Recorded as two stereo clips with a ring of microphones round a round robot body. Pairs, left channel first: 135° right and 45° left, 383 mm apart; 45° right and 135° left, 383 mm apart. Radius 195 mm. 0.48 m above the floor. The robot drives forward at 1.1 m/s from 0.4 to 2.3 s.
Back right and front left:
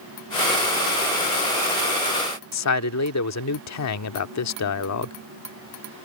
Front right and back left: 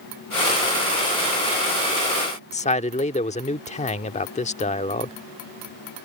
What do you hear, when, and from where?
2.5 s a man speaking: 110° right